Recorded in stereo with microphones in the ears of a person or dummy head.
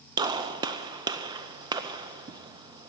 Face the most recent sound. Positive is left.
turn(degrees=-25)  # may be behind; listen again after turning